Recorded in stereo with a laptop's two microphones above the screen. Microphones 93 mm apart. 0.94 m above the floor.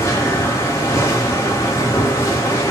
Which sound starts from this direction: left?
A machine running, at 0.0 s.